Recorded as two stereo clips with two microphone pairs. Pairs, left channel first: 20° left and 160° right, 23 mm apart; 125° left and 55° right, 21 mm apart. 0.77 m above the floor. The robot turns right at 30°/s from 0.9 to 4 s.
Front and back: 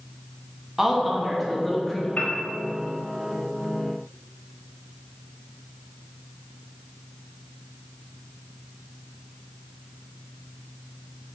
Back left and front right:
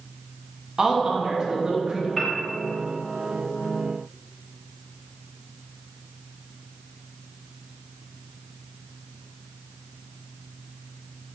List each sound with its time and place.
0.8 s a woman speaking: 85° right, 1.1 m; by 2.1 s 50° right, 1.1 m
2.2 s a piano: 35° left, 1.3 m; by 2.3 s 40° left, 1.3 m